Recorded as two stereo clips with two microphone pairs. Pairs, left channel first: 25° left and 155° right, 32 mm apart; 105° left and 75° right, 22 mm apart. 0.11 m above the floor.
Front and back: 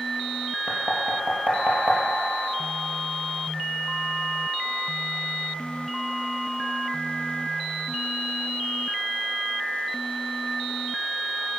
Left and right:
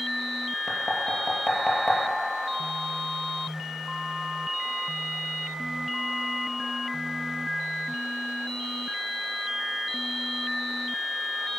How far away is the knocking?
About 2.5 m.